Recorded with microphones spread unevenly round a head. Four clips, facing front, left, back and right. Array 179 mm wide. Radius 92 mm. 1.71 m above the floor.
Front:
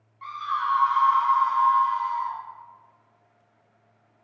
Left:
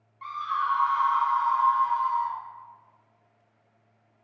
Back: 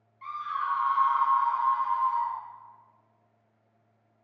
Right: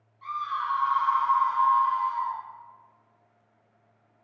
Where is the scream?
45° left, 0.9 m; by 2.4 s 45° right, 1.1 m.